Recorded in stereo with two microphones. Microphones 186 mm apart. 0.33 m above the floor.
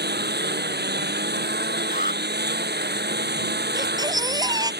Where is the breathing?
I don't hear breathing.